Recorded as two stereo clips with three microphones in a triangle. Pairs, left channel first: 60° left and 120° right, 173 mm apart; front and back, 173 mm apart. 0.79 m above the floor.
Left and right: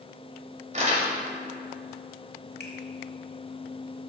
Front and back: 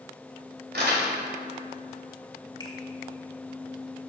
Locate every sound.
0.7 s crumpling: 165° right, 2 m
2.6 s a finger snap: 65° left, 1.4 m